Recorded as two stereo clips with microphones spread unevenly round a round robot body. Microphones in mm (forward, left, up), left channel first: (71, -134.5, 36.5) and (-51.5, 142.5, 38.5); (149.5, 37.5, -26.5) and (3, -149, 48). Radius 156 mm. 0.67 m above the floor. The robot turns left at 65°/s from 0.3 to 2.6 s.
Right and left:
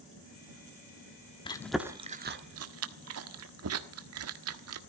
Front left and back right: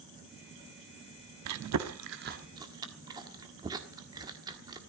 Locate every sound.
1.4 s chewing: 140° right, 1.3 m; by 4.8 s 145° left, 1.3 m